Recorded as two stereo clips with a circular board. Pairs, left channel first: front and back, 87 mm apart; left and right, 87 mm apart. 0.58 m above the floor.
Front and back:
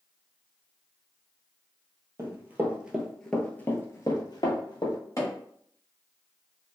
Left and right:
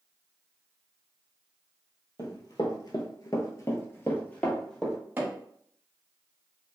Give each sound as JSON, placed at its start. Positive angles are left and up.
{"t": 2.2, "sound": "running footsteps", "azimuth_deg": 125, "distance_m": 1.0}
{"t": 5.2, "sound": "hammering", "azimuth_deg": -35, "distance_m": 1.1}